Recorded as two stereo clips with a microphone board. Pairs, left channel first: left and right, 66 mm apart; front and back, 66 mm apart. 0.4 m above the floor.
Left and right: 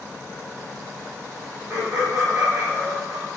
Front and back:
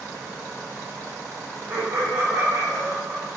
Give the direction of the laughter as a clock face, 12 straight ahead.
5 o'clock.